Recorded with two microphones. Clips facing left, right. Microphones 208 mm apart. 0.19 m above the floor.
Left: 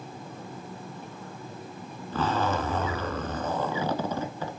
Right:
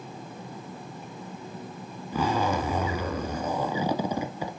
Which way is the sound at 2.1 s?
10° right (ahead or behind).